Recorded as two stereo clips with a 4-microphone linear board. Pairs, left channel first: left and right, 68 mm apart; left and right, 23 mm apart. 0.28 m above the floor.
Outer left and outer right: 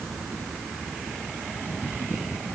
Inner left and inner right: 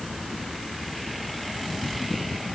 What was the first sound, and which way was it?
Only background noise.